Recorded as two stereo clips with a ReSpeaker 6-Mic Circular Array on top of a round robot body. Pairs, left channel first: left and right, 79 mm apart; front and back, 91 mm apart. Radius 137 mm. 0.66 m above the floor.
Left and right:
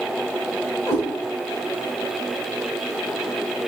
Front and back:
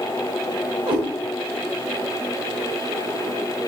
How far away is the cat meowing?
About 1.7 m.